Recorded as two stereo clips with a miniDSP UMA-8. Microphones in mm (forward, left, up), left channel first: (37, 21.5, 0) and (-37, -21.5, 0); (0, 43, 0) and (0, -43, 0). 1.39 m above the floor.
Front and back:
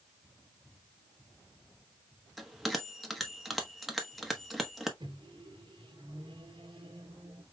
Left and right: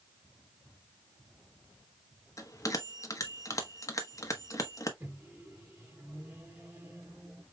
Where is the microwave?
155° right, 1.2 m.